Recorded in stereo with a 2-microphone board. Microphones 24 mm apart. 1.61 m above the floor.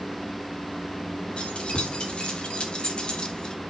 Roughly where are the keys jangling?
Left.